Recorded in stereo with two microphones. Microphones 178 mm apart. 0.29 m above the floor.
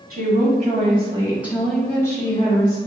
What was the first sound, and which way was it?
A woman speaking, 60° right (ahead or behind).